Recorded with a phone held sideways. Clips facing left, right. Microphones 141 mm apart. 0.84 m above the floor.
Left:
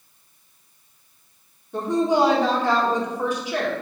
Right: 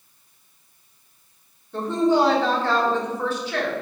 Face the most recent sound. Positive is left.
turn(degrees=15)  # may be behind; listen again after turning